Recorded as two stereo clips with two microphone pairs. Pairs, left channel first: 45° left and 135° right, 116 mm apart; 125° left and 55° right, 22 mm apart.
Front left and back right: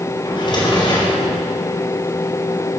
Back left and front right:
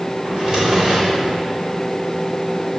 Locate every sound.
0.2 s a drawer: straight ahead, 4.5 m